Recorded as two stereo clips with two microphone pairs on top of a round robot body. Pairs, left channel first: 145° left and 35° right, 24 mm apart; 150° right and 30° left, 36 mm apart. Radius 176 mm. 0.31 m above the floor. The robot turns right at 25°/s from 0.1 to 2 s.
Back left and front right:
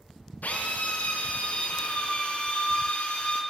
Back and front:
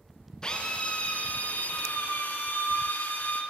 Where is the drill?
140° left, 3.5 m; by 3.4 s straight behind, 3.5 m.